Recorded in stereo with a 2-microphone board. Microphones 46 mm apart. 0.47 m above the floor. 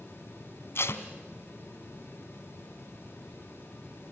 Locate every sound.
0.8 s tape being pulled: 60° left (ahead or behind), 1.2 m